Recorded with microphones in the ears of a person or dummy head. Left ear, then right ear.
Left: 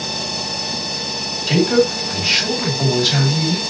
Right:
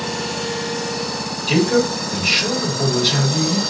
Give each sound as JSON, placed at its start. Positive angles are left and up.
{"t": 1.5, "sound": "a man speaking", "side_deg": 60, "distance_m": 2.5}